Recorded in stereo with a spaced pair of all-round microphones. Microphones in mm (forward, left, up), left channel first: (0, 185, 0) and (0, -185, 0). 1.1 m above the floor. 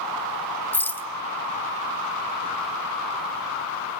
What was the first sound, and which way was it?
A rattle, 5° left (ahead or behind).